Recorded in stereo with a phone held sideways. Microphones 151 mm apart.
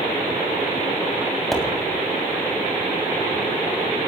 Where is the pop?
Centre (ahead or behind), 3 m.